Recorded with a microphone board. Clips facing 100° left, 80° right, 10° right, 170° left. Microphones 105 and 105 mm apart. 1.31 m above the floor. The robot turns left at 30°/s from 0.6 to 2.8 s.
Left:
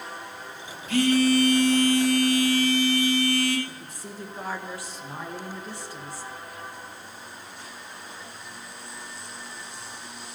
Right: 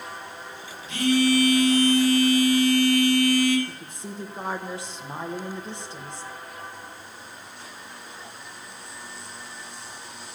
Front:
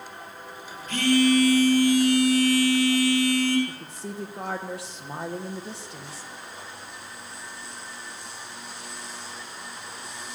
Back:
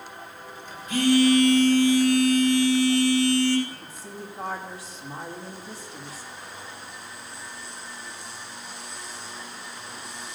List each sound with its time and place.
0.9 s a phone buzzing: 95° left, 3 m; by 3.6 s 35° left, 3 m
3.7 s a woman speaking: 15° right, 1.3 m